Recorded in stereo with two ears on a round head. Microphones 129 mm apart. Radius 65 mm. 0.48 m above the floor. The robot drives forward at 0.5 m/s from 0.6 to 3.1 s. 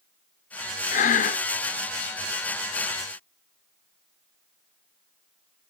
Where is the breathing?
50° left (ahead or behind), 0.7 m.